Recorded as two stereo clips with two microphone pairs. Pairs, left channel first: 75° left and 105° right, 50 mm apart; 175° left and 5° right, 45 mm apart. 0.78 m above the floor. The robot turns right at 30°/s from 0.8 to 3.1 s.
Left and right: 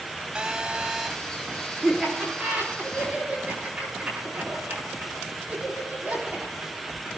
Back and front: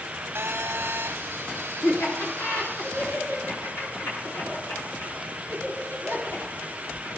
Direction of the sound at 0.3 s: 25° right.